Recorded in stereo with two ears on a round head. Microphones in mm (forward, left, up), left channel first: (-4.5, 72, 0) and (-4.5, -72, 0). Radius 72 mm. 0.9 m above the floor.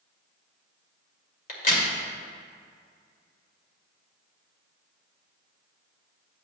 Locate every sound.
1.5 s a crack: 50° left (ahead or behind), 1.9 m